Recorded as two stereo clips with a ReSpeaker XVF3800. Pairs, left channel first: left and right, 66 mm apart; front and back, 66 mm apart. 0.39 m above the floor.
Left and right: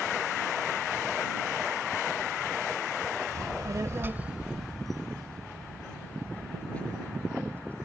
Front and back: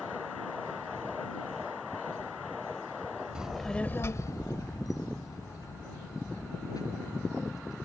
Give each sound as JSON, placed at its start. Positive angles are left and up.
{"t": 3.4, "sound": "a child speaking", "azimuth_deg": -105}